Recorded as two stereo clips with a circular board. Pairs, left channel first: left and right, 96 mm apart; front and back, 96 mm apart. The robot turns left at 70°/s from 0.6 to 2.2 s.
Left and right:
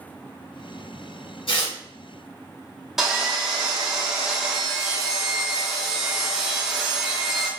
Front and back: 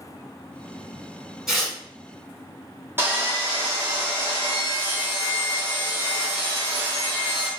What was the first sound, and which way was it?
Tearing paper, 95° left.